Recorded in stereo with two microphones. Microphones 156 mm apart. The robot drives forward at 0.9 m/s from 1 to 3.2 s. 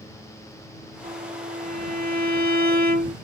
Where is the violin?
60° right (ahead or behind); by 3.1 s 75° right (ahead or behind).